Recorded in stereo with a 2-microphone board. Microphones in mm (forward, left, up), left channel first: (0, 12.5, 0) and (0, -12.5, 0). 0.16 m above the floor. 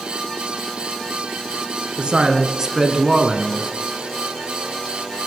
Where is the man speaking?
40° right (ahead or behind), 1.8 m; by 3.7 s 10° left (ahead or behind), 1.1 m.